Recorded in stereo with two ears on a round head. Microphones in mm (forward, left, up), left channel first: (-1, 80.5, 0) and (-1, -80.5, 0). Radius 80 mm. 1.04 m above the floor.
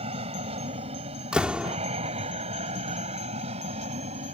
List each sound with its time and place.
0.0 s an aircraft: 35° right (ahead or behind)
1.3 s a door slam: 5° right (ahead or behind)